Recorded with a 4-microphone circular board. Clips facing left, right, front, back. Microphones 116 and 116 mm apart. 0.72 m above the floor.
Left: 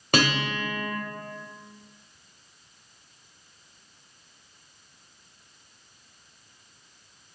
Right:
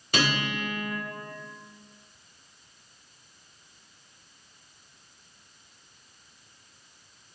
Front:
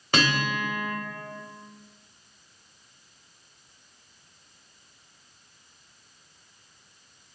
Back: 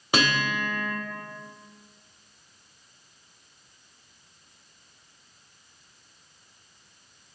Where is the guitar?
105° left, 2.5 m.